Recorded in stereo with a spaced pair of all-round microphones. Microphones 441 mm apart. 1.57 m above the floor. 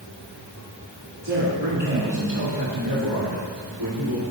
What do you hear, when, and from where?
1.2 s a man speaking: 60° right (ahead or behind), 2.5 m; by 4.2 s 80° right, 4 m